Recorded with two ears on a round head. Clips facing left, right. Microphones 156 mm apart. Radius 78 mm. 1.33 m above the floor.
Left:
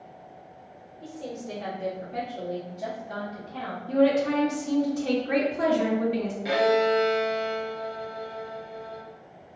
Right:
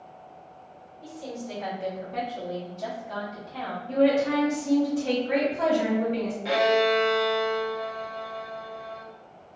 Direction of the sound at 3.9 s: 45° left (ahead or behind).